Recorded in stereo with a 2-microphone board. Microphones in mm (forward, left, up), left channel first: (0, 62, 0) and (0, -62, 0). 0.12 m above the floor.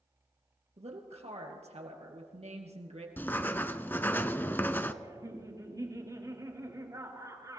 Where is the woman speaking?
60° right (ahead or behind), 2.5 m.